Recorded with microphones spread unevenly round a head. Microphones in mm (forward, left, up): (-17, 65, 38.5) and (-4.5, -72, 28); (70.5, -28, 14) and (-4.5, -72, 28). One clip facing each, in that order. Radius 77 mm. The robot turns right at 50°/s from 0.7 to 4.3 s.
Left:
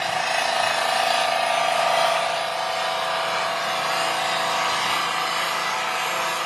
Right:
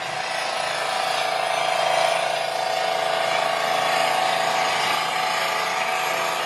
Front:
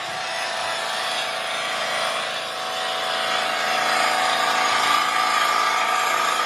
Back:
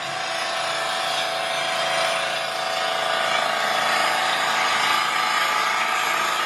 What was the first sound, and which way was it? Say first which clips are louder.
An engine running: left 3 dB, back 1 dB; 135° left.